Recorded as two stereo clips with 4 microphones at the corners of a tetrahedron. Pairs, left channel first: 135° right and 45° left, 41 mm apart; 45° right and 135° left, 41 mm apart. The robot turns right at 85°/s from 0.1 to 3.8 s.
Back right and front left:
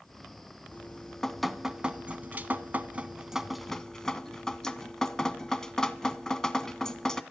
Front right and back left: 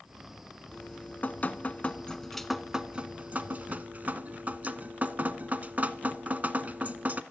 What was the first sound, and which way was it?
Dripping, 105° right.